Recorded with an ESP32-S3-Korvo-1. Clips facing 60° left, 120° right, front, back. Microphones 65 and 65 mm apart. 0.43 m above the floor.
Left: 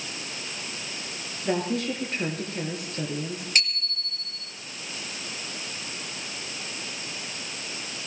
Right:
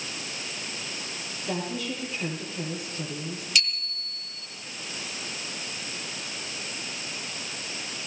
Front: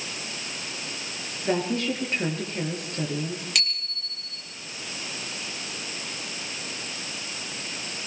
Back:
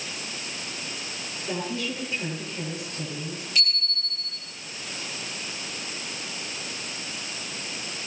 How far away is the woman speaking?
About 10 m.